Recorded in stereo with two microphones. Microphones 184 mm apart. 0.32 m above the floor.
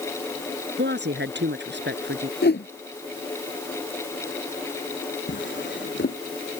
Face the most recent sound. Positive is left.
turn(degrees=85)